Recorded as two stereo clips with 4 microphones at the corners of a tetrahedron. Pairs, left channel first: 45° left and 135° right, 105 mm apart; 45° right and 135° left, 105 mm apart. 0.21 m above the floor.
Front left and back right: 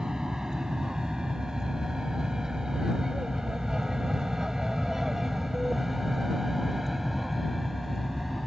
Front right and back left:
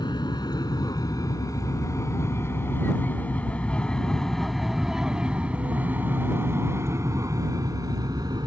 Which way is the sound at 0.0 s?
55° right.